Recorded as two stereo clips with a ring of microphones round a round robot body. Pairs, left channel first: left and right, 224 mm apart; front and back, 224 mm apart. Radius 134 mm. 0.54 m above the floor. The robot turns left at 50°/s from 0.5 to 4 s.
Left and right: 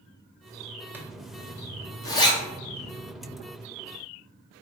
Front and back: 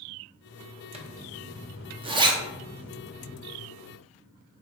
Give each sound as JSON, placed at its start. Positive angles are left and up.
{"t": 0.9, "sound": "a zipper", "azimuth_deg": -160, "distance_m": 0.6}